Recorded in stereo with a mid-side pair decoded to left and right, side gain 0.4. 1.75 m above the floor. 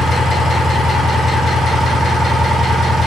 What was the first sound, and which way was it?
An engine running, 55° left.